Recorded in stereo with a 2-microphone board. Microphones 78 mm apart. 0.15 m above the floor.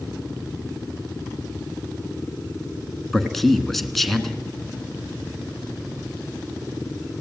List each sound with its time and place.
3.1 s a man speaking: centre (ahead or behind), 1.4 m